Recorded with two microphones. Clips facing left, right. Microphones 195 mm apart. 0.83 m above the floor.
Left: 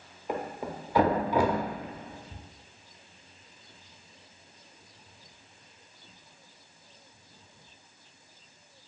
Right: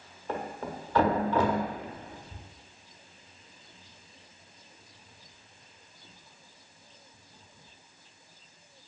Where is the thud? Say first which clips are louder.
Left 1 dB; 15° left (ahead or behind), 0.6 m.